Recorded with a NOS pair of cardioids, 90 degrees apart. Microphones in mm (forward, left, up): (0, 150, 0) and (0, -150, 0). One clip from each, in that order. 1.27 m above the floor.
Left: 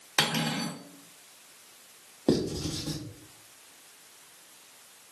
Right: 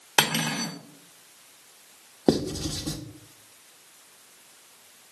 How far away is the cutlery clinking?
About 1.3 m.